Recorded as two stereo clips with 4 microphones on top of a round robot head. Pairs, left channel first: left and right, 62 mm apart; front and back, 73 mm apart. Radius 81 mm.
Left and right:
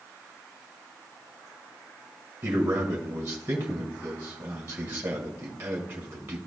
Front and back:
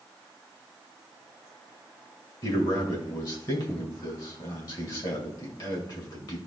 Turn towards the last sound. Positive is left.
turn(degrees=-40)